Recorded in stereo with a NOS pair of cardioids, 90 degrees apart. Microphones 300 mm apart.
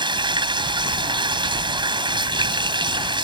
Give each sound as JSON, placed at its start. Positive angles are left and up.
{"t": 0.0, "sound": "running water", "azimuth_deg": -15}